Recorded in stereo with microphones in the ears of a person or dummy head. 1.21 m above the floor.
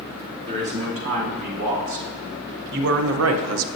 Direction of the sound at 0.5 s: 40° right (ahead or behind).